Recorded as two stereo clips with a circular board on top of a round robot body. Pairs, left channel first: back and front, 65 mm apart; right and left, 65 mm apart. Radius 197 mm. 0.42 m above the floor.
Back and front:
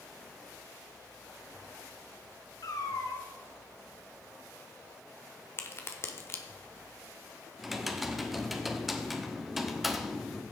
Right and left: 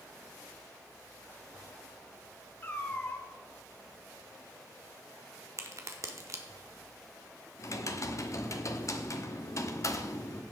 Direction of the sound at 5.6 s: 130° left.